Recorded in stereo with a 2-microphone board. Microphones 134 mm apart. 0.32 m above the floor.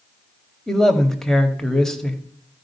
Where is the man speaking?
5° left (ahead or behind), 1.4 m.